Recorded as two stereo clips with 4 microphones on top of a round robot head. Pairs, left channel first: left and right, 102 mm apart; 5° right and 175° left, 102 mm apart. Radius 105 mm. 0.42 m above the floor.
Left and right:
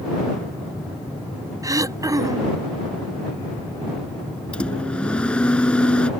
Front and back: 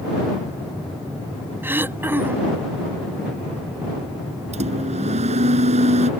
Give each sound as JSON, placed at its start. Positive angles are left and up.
{"t": 1.6, "sound": "throat clearing", "azimuth_deg": -125}
{"t": 4.5, "sound": "a microwave", "azimuth_deg": 170}